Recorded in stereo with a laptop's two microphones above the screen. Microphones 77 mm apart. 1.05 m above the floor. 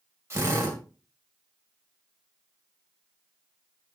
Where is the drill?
35° right (ahead or behind), 2 m.